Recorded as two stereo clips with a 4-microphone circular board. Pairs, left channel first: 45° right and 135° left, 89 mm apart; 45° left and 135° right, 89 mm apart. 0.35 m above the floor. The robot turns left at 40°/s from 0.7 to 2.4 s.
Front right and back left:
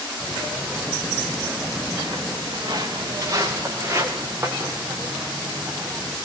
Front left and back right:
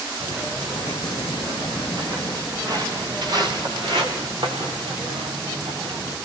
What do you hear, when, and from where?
0.2 s footsteps: 140° right, 5 m; by 6.2 s 145° right, 6 m